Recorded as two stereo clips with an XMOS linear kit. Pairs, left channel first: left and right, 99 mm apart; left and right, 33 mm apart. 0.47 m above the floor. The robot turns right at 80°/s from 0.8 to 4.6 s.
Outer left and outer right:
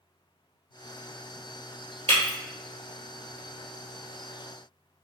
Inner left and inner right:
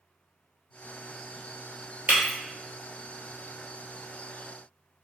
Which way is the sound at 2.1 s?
80° right.